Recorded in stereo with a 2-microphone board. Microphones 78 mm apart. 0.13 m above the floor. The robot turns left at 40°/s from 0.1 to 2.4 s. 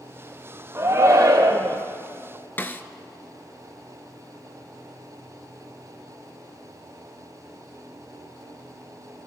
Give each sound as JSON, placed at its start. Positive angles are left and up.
{"t": 0.8, "sound": "a shout", "azimuth_deg": -40, "distance_m": 3.0}
{"t": 2.6, "sound": "a snare drum", "side_deg": 30, "distance_m": 0.6}